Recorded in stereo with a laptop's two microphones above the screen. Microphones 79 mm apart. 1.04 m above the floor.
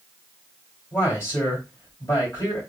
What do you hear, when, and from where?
0.9 s a man speaking: 35° left (ahead or behind), 2.5 m